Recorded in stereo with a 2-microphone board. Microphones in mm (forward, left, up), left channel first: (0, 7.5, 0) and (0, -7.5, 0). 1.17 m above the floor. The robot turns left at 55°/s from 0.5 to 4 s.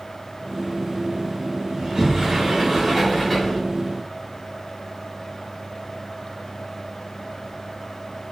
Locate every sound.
1.8 s a sliding door: 105° right, 1.8 m; by 3.6 s 155° left, 1.8 m